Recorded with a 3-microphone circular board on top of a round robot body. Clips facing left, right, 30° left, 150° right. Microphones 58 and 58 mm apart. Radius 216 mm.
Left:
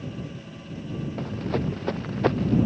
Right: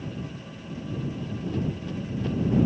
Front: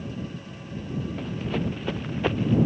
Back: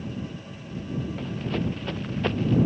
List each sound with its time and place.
1.2 s running footsteps: 115° left; by 2.5 s 110° left